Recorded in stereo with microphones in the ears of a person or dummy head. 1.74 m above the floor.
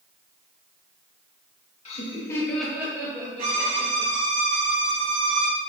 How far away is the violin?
About 0.7 m.